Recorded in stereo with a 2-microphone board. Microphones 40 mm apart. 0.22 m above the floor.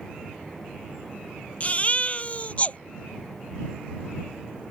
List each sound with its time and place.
1.6 s a baby crying: 35° left (ahead or behind)